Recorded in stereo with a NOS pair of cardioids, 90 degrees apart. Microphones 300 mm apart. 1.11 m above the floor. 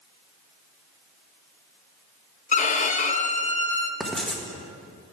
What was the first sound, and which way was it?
A violin, 25° left.